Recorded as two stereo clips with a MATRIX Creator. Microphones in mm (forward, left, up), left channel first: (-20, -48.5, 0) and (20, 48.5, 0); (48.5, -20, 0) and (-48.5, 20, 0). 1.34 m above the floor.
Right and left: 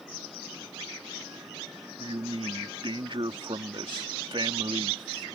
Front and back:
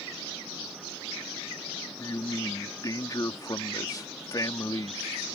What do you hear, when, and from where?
2.0 s a man speaking: 30° left